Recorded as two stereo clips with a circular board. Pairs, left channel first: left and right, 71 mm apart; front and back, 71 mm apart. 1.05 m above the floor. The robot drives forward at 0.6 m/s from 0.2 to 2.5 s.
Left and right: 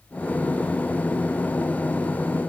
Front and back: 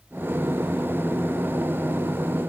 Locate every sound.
Only background noise.